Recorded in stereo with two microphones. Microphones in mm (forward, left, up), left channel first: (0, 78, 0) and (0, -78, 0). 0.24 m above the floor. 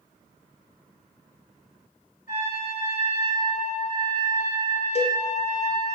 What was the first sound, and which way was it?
A trumpet, 65° left (ahead or behind).